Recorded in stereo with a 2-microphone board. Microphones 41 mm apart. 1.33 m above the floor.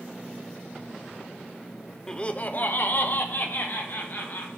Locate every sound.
2.1 s laughter: 15° left (ahead or behind), 0.6 m; by 4.5 s 55° left (ahead or behind), 2.0 m